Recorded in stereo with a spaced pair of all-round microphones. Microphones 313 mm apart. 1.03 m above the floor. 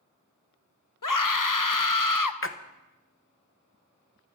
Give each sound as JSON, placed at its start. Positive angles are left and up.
{"t": 1.0, "sound": "a scream", "side_deg": 80, "distance_m": 0.9}
{"t": 2.4, "sound": "a splash", "side_deg": 40, "distance_m": 0.9}